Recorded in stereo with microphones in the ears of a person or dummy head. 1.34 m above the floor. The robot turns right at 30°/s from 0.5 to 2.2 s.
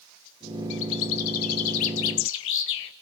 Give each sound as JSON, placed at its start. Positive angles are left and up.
{"t": 0.7, "sound": "a bird", "azimuth_deg": 65, "distance_m": 0.9}